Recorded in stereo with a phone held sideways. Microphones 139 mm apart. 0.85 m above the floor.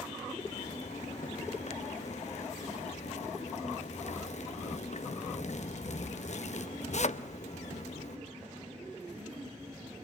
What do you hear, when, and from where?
0.4 s a zipper: 60° left (ahead or behind), 0.6 m